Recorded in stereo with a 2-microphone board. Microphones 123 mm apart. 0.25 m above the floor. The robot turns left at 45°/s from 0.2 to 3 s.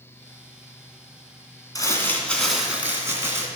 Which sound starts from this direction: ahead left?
Crumpling, at 1.8 s.